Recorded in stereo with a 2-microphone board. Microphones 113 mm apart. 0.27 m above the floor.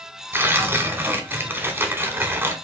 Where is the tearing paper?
20° right (ahead or behind), 0.7 m.